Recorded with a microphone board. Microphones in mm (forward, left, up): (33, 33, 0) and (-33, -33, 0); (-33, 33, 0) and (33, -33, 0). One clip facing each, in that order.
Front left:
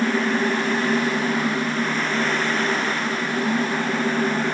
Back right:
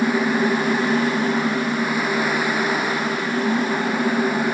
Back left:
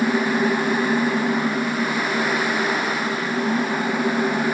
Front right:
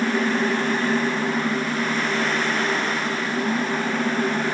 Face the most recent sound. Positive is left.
No sound to turn to.